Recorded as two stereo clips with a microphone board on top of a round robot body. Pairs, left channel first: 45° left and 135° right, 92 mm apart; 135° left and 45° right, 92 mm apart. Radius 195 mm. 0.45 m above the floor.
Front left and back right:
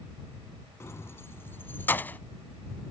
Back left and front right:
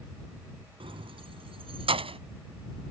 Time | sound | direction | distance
0.8 | keys jangling | 20° right | ?